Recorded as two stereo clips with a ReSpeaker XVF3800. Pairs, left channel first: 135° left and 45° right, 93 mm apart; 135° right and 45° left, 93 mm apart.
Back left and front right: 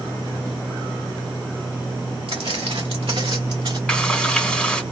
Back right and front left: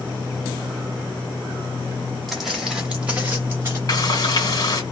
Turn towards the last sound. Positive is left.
turn(degrees=-150)